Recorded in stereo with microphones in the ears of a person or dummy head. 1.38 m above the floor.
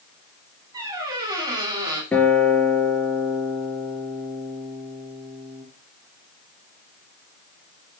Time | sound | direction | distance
0.7 | a squeak | 25° right (ahead or behind) | 2.5 m
2.1 | a guitar | 15° left (ahead or behind) | 3.5 m